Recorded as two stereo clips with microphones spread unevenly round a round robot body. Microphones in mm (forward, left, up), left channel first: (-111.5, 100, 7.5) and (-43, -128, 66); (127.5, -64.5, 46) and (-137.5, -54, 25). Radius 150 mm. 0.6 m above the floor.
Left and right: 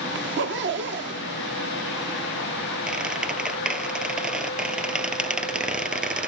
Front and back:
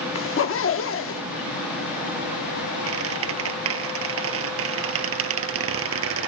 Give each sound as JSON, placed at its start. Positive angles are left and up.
{"t": 0.1, "sound": "a zipper", "azimuth_deg": -30, "distance_m": 1.3}
{"t": 2.9, "sound": "a squeak", "azimuth_deg": -155, "distance_m": 1.3}